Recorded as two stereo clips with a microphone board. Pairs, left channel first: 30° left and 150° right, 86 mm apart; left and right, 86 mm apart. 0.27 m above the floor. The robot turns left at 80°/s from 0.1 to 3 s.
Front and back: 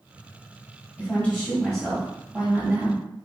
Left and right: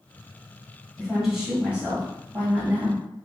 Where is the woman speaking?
10° left, 1.6 m; by 3.0 s 155° right, 1.6 m.